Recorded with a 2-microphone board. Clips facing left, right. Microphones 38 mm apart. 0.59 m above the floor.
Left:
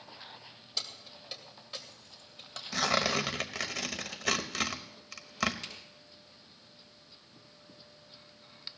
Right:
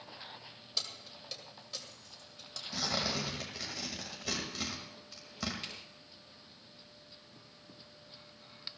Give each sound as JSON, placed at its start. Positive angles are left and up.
{"t": 0.8, "sound": "keys jangling", "side_deg": 0, "distance_m": 2.0}
{"t": 2.7, "sound": "tearing paper", "side_deg": 75, "distance_m": 1.1}
{"t": 5.6, "sound": "a finger snap", "side_deg": -10, "distance_m": 6.5}